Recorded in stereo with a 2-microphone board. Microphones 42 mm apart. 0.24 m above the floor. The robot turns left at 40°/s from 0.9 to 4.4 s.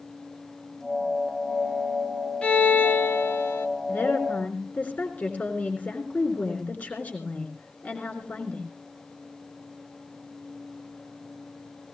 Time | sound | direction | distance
2.4 | a violin | 150° left | 1.6 m
3.9 | a woman speaking | 55° left (ahead or behind) | 3.5 m